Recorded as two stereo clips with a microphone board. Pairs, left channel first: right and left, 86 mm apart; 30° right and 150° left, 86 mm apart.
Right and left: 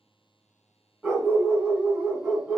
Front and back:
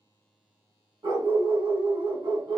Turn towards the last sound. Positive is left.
turn(degrees=165)